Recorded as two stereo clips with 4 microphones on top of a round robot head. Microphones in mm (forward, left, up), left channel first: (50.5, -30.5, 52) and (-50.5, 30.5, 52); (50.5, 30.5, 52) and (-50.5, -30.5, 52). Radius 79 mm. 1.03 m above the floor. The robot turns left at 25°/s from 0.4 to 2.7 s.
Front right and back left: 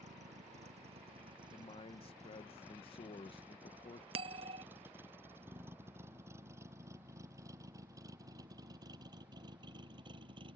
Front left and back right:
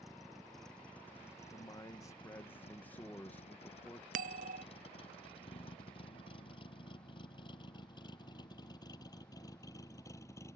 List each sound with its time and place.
0.0 s a vehicle: 125° left; by 10.6 s 100° left
1.5 s a man speaking: 10° right; by 4.0 s 40° right
4.1 s a bell: 170° right